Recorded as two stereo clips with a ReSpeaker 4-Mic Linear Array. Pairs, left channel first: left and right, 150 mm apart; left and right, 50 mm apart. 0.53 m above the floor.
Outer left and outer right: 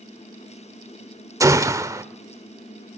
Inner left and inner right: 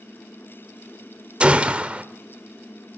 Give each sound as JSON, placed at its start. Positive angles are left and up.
{"t": 1.4, "sound": "a gunshot", "side_deg": -20, "distance_m": 1.1}